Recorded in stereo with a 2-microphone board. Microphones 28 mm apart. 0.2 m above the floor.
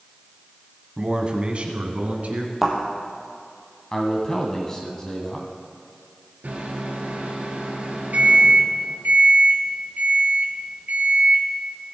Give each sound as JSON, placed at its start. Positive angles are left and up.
{"t": 1.0, "sound": "a man speaking", "side_deg": -25, "distance_m": 1.1}
{"t": 2.6, "sound": "a thud", "side_deg": -15, "distance_m": 2.0}
{"t": 3.9, "sound": "a man speaking", "side_deg": 20, "distance_m": 1.2}
{"t": 6.4, "sound": "a microwave", "side_deg": -70, "distance_m": 2.5}